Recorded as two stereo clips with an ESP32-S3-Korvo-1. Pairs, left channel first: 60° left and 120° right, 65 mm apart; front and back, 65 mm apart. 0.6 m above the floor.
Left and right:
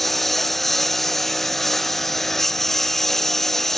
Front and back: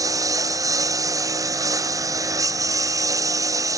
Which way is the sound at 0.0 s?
150° left.